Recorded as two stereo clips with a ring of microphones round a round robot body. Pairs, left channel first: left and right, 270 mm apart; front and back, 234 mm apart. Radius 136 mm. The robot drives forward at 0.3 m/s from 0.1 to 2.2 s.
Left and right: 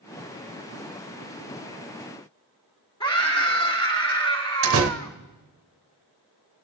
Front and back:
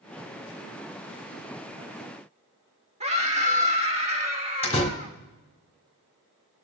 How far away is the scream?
About 1.4 m.